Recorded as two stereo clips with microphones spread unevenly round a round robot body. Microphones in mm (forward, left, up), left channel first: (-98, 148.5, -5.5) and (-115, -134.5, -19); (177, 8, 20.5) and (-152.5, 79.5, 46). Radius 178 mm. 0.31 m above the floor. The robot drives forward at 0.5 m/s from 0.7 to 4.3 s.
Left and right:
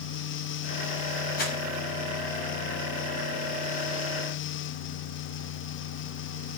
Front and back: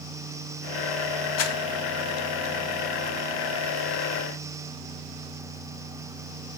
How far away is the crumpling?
About 2 m.